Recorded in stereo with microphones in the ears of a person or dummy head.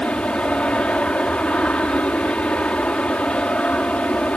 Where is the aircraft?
5° left (ahead or behind).